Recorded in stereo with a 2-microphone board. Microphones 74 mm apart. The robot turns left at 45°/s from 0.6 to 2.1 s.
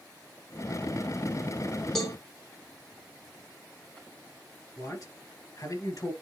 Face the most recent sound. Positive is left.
turn(degrees=45)  # may be behind; listen again after turning